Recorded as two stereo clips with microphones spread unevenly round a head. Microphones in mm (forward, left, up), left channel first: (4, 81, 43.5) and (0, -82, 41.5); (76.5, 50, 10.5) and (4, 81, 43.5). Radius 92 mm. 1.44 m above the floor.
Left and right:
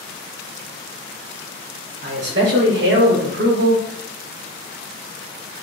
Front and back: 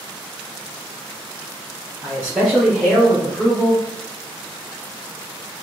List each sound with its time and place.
2.0 s a man speaking: 105° right, 1.6 m; by 3.9 s 95° right, 0.6 m